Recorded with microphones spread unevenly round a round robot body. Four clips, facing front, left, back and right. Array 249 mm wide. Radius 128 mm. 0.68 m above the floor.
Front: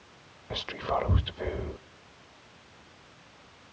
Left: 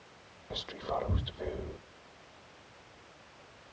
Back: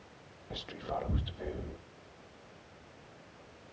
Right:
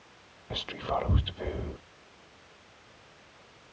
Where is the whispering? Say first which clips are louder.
Right 4 dB, front 8 dB; 30° right, 0.7 m.